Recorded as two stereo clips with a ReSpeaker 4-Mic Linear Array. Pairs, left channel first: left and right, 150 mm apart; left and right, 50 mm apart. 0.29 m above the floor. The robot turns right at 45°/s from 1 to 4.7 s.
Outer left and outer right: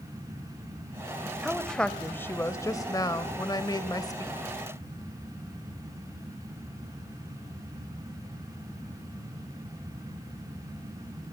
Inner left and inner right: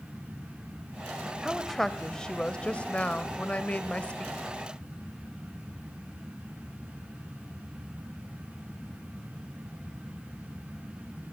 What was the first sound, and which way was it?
A woman speaking, centre (ahead or behind).